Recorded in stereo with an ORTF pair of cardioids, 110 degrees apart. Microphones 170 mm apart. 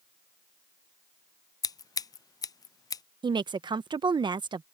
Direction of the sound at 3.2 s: 25° right.